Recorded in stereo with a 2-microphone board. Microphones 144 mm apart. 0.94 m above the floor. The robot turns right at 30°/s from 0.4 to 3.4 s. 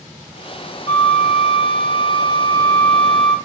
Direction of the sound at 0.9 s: 105° left.